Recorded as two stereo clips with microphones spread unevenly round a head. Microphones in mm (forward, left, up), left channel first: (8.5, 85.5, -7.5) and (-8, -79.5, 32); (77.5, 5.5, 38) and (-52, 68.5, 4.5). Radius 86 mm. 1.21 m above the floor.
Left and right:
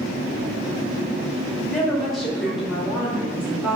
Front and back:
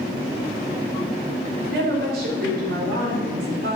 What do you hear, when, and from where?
1.6 s a woman speaking: 170° left, 5.5 m; by 3.8 s 175° right, 4.5 m